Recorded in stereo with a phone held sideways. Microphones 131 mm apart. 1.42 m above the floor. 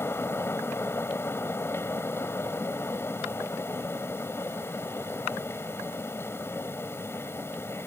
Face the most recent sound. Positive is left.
turn(degrees=15)  # may be behind; listen again after turning